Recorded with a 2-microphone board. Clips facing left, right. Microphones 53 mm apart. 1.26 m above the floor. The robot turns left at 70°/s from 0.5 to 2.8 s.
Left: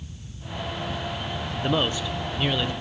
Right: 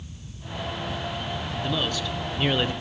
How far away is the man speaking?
About 0.7 m.